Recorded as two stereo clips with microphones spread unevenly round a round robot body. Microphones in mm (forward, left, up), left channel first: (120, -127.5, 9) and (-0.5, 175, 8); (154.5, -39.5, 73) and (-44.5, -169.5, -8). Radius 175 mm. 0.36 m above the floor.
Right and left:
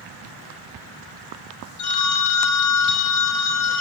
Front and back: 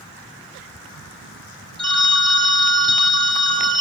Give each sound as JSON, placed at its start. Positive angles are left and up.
{"t": 1.8, "sound": "a phone ringing", "azimuth_deg": -80, "distance_m": 1.5}